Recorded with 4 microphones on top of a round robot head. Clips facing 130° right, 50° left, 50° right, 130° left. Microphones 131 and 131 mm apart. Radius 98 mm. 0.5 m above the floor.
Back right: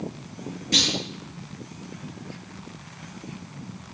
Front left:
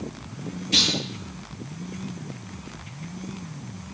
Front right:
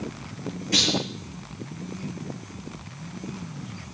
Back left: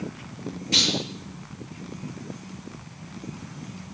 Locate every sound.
0.7 s a clunk: 170° right, 9.5 m